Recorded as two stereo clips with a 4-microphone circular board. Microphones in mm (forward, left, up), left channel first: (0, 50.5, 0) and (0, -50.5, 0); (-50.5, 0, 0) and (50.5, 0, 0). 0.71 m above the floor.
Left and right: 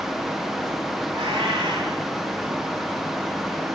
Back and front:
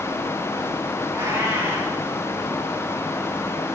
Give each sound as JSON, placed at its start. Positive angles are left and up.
{"t": 1.1, "sound": "a cat meowing", "azimuth_deg": -65, "distance_m": 3.5}